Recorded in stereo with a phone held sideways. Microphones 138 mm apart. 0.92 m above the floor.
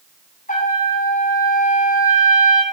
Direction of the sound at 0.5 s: 80° left.